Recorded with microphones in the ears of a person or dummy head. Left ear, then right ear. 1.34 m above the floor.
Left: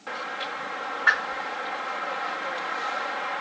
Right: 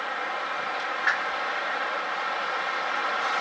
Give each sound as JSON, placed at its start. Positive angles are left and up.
{"t": 1.1, "sound": "a whoosh", "side_deg": -10, "distance_m": 0.6}